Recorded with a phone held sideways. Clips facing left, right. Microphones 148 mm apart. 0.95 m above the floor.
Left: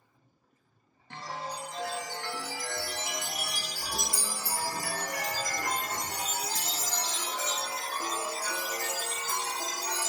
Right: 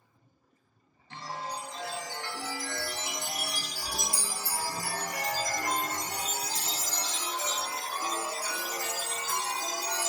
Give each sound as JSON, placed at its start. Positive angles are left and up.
{"t": 1.1, "sound": "a chime", "side_deg": 55, "distance_m": 0.8}